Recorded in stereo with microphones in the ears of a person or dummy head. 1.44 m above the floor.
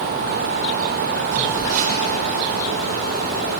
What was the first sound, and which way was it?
A phone buzzing, 40° right (ahead or behind).